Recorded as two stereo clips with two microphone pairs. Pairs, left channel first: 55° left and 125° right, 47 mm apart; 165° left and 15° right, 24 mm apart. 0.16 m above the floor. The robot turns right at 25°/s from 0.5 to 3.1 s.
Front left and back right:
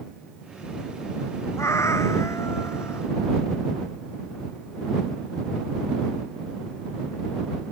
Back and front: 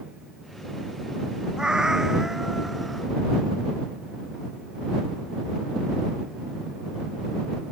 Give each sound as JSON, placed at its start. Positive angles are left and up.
{"t": 1.6, "sound": "a cat meowing", "azimuth_deg": 40}